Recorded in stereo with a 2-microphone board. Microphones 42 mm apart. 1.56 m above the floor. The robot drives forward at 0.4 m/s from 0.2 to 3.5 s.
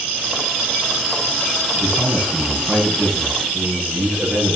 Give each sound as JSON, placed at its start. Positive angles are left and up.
{"t": 1.8, "sound": "a man speaking", "side_deg": -20, "distance_m": 5.0}